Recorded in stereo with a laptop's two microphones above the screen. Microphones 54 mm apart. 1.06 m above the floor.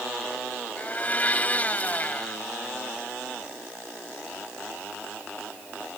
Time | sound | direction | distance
0.8 | a blender | 30° left (ahead or behind) | ?